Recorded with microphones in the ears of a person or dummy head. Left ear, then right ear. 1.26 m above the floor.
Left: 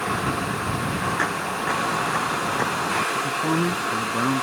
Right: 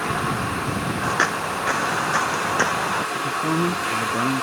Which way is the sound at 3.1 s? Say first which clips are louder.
Even; 5° left (ahead or behind).